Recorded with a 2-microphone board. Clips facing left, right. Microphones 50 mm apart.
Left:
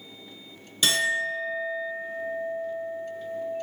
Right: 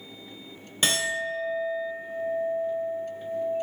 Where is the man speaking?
I don't hear a man speaking.